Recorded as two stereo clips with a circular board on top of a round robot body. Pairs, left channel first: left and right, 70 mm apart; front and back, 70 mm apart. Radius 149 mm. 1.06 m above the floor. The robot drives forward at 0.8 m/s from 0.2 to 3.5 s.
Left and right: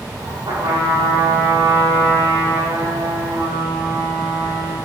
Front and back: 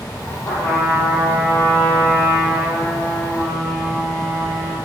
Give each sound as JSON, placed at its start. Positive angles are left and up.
{"t": 0.5, "sound": "a trumpet", "azimuth_deg": -55, "distance_m": 6.0}